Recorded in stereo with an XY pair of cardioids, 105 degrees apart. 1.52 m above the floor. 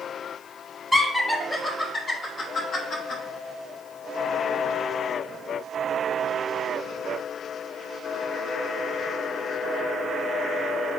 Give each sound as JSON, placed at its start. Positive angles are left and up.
{"t": 0.9, "sound": "laughter", "azimuth_deg": -5, "distance_m": 1.1}